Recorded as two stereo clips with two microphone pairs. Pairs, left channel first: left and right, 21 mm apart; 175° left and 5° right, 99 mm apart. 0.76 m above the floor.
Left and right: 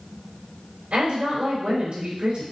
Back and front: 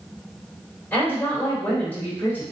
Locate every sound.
0.9 s a woman speaking: 115° right, 3.5 m